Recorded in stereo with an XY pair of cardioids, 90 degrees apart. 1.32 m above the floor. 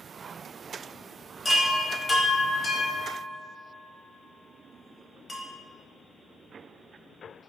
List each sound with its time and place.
1.4 s a chime: 25° left, 0.9 m